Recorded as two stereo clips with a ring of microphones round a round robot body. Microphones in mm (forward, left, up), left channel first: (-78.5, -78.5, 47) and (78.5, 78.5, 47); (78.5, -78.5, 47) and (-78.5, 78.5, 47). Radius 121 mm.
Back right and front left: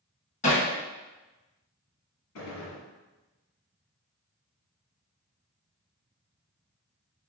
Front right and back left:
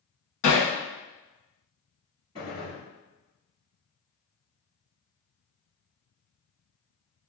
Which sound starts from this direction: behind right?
A gunshot, at 2.4 s.